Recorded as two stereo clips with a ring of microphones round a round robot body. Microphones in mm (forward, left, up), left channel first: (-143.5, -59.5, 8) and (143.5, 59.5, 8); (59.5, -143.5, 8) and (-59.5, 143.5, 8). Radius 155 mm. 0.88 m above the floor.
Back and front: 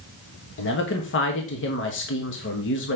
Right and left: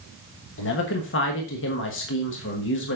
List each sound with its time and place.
0.6 s a man speaking: 110° right, 1.3 m